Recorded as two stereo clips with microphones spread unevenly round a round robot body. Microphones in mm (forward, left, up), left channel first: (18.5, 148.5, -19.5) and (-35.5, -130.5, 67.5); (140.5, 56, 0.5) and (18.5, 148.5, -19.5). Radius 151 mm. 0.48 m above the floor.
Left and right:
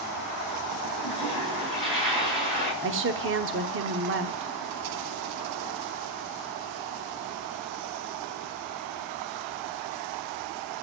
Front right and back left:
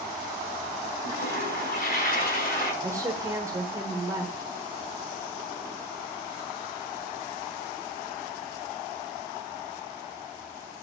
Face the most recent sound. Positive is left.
turn(degrees=-155)